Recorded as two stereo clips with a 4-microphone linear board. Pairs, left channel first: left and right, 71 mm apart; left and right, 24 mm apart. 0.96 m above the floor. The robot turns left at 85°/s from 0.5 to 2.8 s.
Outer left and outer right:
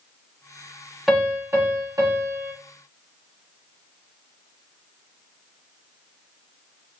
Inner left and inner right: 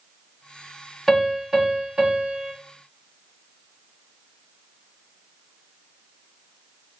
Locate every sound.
1.1 s a piano: 5° right, 1.1 m; by 2.5 s 130° right, 1.1 m